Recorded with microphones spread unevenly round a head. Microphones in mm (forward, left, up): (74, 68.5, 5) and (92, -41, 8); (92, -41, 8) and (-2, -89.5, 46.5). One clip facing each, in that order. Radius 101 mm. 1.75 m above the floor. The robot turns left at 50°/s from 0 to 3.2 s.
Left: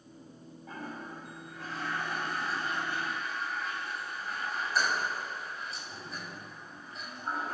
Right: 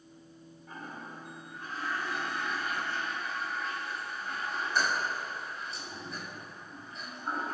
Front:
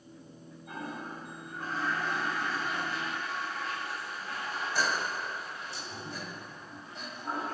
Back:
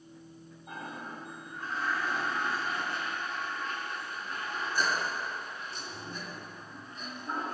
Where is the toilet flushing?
135° left, 6 m; by 7.5 s 10° left, 6 m.